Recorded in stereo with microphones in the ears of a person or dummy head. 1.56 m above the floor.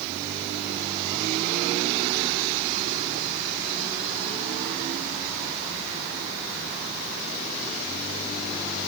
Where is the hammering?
No hammering in this recording.